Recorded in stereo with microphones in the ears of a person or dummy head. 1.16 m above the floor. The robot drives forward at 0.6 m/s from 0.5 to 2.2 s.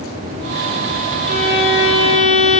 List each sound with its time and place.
1.2 s a violin: 70° left (ahead or behind), 1.7 m; by 2.6 s 60° left (ahead or behind), 1.8 m